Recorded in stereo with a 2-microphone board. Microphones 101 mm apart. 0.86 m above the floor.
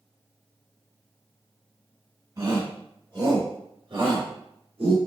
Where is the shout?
40° right (ahead or behind), 2.5 m; by 5.0 s 75° right (ahead or behind), 1.9 m.